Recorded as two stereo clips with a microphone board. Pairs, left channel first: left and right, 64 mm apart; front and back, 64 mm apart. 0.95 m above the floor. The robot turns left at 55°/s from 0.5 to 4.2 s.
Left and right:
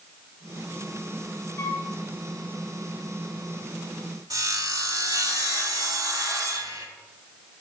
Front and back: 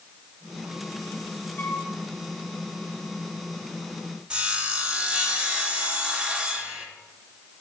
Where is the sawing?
105° right, 1.5 m.